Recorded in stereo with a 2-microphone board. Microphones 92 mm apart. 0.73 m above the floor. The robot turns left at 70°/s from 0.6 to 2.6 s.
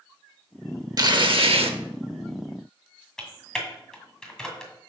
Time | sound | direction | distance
1.0 | tearing paper | 45° right | 0.8 m
3.2 | typing on a keyboard | 5° left (ahead or behind) | 1.9 m